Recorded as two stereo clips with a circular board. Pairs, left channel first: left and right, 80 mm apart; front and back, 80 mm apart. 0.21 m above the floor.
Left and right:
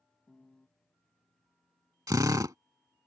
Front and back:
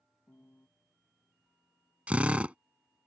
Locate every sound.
0.3 s a piano: 25° left
2.1 s a drill: 110° right